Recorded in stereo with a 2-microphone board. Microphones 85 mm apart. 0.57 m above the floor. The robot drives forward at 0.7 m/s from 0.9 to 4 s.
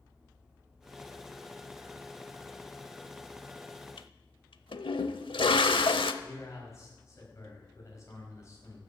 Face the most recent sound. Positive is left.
turn(degrees=35)  # may be behind; listen again after turning